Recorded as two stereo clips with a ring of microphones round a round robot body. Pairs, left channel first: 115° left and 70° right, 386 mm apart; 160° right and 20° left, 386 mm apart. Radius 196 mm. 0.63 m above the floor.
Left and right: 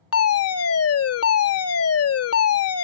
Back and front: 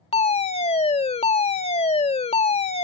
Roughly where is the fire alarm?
Behind left.